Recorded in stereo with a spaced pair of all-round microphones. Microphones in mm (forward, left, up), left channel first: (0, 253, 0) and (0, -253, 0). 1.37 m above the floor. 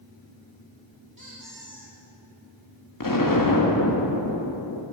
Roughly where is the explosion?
Left.